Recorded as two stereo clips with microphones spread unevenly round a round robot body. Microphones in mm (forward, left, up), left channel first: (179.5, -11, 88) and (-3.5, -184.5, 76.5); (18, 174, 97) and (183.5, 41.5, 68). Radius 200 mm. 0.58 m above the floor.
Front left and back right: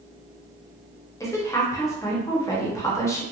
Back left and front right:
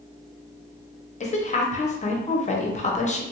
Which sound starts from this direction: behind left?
A woman speaking, at 1.2 s.